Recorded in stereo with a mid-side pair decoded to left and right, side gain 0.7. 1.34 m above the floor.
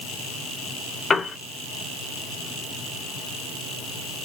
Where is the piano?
20° left, 3 m.